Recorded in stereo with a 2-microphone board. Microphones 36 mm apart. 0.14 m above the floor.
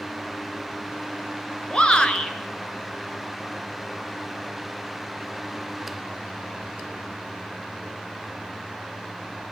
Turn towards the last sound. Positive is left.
turn(degrees=25)  # may be behind; listen again after turning